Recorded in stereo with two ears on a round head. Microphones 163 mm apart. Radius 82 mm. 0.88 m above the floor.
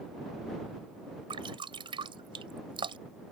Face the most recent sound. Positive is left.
turn(degrees=-30)  # may be behind; listen again after turning